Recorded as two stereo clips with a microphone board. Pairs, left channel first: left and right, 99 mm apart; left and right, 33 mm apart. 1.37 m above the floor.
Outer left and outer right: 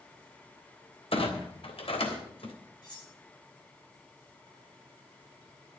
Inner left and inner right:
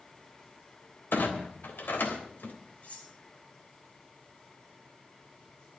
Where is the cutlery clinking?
45° left (ahead or behind), 10 m.